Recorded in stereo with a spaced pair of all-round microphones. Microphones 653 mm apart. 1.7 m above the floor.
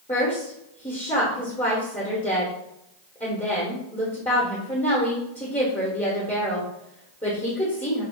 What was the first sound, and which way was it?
A woman speaking, 10° left (ahead or behind).